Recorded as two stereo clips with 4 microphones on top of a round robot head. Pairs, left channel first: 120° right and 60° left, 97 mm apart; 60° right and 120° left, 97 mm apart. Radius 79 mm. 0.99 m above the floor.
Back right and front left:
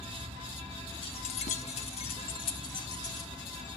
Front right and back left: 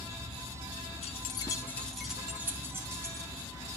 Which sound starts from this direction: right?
Keys jangling, at 1.0 s.